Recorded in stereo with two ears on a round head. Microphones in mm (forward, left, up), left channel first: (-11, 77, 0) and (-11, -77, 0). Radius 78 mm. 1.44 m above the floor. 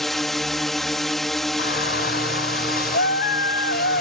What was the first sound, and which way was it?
A drone, centre (ahead or behind).